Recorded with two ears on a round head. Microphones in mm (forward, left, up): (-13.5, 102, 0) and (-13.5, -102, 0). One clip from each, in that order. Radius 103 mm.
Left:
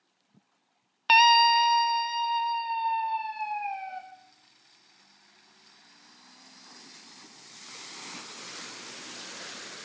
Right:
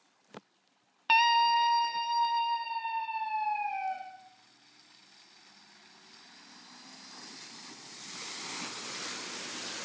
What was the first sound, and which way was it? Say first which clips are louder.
A scream: left 6 dB; 30° left (ahead or behind).